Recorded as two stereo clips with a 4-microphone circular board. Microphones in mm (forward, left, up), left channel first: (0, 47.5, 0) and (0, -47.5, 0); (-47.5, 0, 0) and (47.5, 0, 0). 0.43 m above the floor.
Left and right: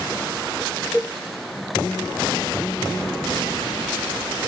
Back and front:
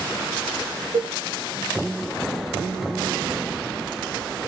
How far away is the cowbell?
About 1.0 m.